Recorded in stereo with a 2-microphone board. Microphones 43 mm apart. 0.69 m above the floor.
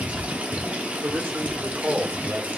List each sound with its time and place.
0.0 s running water: 40° right (ahead or behind), 0.9 m
1.0 s a man speaking: 65° right (ahead or behind), 1.7 m